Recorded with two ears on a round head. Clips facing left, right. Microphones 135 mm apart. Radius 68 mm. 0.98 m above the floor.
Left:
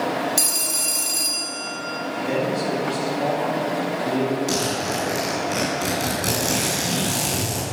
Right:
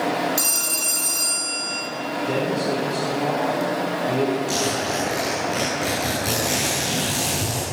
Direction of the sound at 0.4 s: 25° left (ahead or behind).